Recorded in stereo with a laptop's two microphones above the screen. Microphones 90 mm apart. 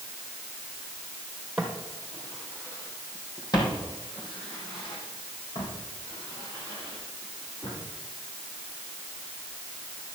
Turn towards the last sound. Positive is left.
turn(degrees=80)